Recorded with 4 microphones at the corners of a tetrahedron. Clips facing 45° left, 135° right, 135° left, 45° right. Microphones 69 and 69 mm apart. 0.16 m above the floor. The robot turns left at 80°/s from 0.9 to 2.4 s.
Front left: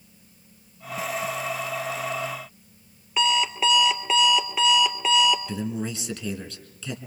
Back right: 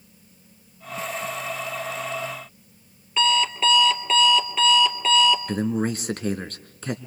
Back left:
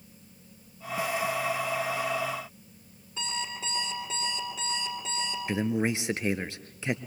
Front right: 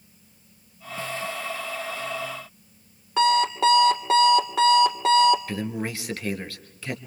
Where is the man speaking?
160° right, 2 m.